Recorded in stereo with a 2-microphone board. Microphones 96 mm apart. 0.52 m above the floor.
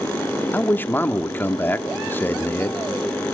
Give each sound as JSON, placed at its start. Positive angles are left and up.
{"t": 0.5, "sound": "a man speaking", "side_deg": 20, "distance_m": 0.9}